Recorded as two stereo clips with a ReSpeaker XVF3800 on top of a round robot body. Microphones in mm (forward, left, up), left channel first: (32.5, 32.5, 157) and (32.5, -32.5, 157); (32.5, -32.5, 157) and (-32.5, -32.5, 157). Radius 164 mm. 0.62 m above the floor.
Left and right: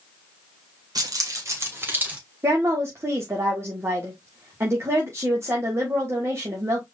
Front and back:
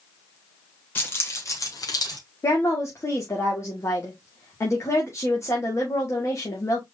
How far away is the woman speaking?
About 2 m.